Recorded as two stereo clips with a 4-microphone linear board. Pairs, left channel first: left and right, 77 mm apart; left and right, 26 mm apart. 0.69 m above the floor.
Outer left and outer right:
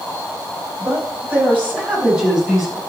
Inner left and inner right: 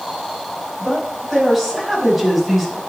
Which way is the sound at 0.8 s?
30° right (ahead or behind).